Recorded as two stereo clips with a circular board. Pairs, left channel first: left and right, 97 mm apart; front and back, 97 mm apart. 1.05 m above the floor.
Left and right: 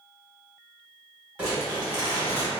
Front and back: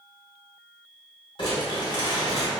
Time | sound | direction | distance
1.4 | crumpling | 20° right | 1.4 m